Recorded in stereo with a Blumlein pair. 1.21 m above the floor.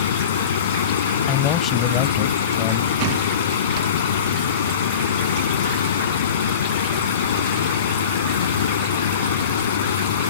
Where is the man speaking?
30° left.